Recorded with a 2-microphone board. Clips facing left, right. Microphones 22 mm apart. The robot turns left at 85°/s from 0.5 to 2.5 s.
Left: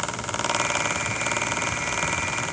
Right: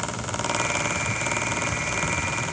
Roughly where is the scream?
I don't hear a scream.